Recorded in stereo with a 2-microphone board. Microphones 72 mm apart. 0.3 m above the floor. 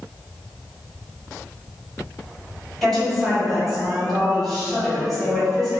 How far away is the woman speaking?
About 1.4 m.